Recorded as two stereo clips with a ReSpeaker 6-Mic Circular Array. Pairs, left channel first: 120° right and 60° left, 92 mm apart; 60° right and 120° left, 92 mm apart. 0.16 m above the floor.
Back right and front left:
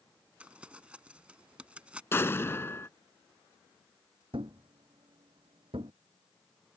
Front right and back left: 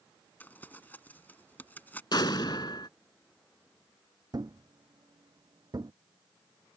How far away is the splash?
No splash in this recording.